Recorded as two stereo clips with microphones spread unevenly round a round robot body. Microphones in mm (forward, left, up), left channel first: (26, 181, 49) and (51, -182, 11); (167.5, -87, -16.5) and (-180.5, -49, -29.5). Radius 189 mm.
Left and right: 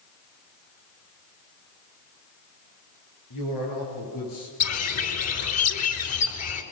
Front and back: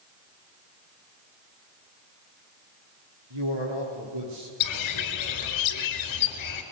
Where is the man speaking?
140° left, 9.5 m.